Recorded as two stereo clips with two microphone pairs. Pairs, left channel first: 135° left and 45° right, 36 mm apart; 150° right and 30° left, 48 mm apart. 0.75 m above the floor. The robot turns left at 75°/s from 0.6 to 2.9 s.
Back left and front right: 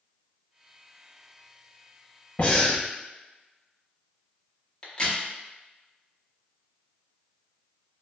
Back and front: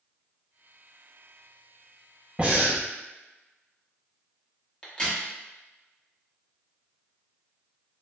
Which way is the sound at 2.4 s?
90° left.